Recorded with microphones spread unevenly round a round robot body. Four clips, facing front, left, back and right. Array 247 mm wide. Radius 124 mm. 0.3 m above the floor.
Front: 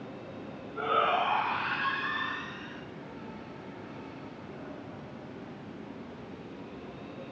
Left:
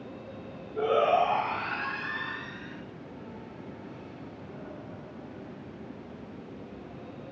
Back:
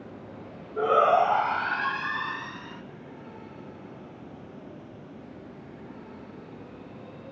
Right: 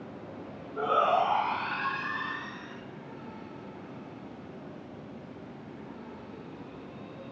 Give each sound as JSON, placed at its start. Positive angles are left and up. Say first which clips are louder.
{"t": 0.8, "sound": "a shout", "louder": "left 2 dB, back 7 dB", "azimuth_deg": 165, "distance_m": 1.1}